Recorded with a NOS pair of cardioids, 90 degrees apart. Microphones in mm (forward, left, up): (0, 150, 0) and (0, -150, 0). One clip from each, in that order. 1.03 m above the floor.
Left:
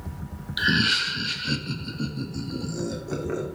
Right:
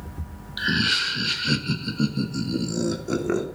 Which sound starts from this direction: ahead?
Laughter, at 0.6 s.